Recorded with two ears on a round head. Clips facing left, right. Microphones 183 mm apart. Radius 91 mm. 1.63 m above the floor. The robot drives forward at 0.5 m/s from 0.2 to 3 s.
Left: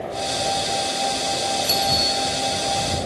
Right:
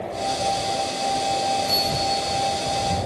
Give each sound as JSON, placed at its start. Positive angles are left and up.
{"t": 1.6, "sound": "a bicycle bell", "side_deg": 55, "distance_m": 3.5}